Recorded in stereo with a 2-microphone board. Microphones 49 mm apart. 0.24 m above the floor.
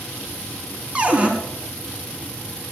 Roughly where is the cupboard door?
Right.